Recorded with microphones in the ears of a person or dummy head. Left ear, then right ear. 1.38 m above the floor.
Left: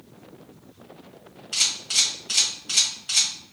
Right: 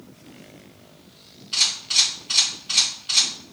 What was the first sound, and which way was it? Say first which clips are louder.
A camera shutter: right 3 dB; 25° left (ahead or behind).